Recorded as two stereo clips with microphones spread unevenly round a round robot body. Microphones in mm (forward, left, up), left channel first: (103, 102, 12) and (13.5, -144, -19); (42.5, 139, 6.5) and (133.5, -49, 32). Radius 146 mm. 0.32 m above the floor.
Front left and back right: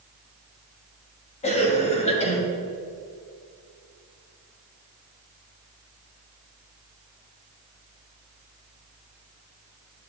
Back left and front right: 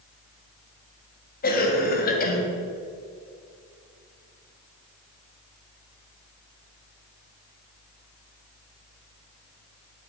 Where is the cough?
140° left, 1.8 m.